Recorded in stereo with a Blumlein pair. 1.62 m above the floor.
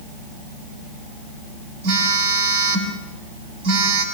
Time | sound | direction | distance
1.8 | a phone buzzing | 50° right | 5.5 m